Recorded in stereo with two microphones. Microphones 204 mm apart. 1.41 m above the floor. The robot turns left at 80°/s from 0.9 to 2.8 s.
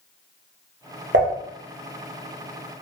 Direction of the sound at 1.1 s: 65° right (ahead or behind).